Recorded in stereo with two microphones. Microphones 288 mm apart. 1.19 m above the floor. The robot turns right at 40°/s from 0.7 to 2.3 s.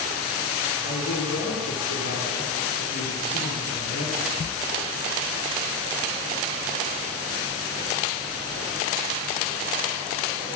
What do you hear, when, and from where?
0.8 s a man speaking: 60° left, 4.5 m; by 4.6 s 115° left, 4.5 m